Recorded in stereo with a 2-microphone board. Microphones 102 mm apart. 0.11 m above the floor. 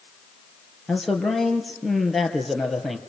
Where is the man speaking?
Centre (ahead or behind), 3 m.